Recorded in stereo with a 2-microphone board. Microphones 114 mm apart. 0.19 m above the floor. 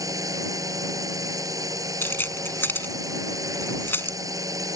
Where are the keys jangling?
20° left (ahead or behind).